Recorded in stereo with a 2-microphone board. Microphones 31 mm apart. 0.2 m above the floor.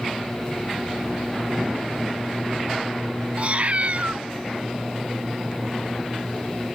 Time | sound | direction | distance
3.4 | a cat meowing | 50° right (ahead or behind) | ?